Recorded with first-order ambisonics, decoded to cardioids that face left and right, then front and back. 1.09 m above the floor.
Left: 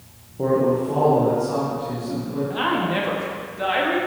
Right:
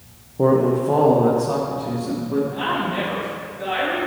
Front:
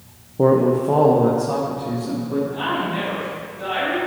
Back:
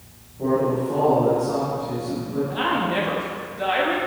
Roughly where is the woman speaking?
Behind left.